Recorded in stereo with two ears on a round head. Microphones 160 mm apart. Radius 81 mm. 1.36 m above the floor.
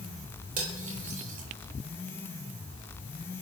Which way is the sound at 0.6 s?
45° right (ahead or behind).